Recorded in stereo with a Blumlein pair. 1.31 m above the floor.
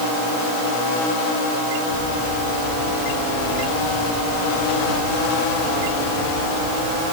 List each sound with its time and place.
Only background noise.